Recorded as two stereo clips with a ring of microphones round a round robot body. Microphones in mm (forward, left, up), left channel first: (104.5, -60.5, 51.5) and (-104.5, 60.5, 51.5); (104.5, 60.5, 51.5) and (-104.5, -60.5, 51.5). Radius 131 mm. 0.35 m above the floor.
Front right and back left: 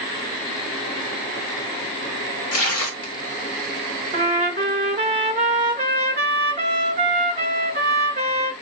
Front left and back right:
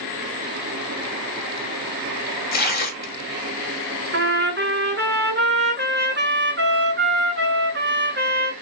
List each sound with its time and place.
2.5 s tearing paper: 20° right, 1.2 m
4.1 s a trumpet: 160° right, 1.3 m